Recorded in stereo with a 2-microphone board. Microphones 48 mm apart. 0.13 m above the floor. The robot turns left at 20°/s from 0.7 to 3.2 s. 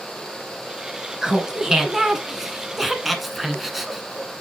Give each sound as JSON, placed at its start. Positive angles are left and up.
{"t": 1.2, "sound": "laughter", "side_deg": -15, "distance_m": 1.2}